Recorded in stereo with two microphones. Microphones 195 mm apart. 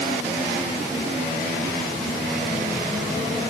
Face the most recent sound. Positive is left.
No sound to turn to.